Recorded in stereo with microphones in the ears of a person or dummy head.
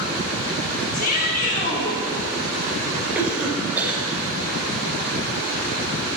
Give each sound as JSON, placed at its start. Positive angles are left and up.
{"t": 0.9, "sound": "a shout", "side_deg": 50, "distance_m": 4.5}
{"t": 3.1, "sound": "a cough", "side_deg": -15, "distance_m": 4.5}